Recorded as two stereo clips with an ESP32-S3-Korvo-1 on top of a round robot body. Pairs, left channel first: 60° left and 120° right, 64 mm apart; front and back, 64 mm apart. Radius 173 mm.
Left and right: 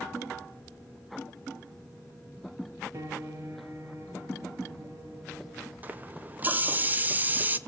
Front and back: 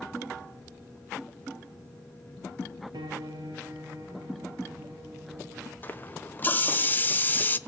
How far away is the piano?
About 4 m.